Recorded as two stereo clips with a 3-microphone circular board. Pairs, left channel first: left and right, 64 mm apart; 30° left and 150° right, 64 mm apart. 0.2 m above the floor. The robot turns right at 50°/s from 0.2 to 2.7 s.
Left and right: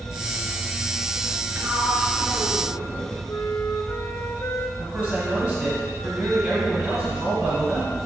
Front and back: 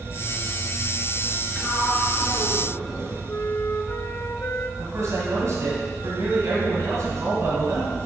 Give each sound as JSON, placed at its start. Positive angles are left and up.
{"t": 1.6, "sound": "a sliding door", "azimuth_deg": -35, "distance_m": 1.5}
{"t": 3.3, "sound": "a flute", "azimuth_deg": 65, "distance_m": 0.5}
{"t": 4.8, "sound": "a man speaking", "azimuth_deg": -170, "distance_m": 2.5}